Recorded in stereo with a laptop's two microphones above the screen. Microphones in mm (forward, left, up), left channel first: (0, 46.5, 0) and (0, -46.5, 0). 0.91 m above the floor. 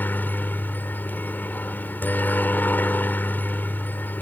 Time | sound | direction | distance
0.0 | a helicopter | 20° left (ahead or behind) | ?